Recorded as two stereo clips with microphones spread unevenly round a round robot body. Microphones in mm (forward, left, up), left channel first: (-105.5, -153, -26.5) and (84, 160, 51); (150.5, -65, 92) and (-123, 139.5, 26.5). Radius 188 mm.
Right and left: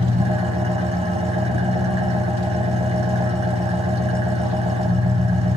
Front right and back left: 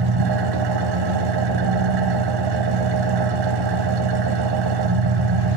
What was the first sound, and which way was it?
An engine running, 135° left.